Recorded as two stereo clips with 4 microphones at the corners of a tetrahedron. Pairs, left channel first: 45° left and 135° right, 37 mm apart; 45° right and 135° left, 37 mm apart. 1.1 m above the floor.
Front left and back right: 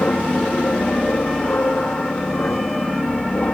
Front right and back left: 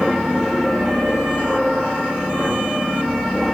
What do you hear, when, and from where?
0.0 s an aircraft: 50° left